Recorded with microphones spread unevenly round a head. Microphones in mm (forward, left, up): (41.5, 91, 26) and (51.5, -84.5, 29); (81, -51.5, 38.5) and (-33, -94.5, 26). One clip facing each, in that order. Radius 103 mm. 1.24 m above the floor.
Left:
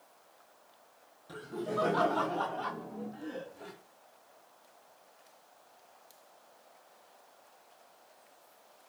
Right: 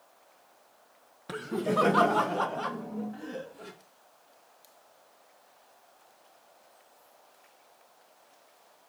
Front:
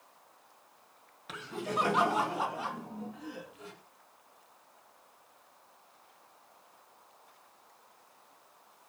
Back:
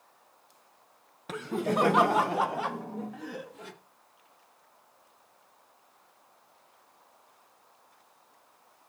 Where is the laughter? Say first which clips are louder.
Right 7 dB, back 7 dB; 120° right, 0.9 m; by 3.7 s 140° right, 2 m.